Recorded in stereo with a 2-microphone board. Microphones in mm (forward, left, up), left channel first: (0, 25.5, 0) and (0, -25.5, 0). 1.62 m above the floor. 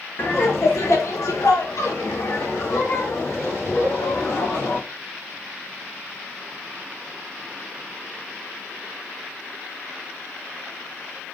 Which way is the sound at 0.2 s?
50° left (ahead or behind).